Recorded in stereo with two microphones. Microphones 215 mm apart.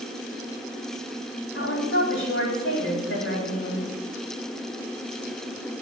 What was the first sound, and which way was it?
A woman speaking, 65° left (ahead or behind).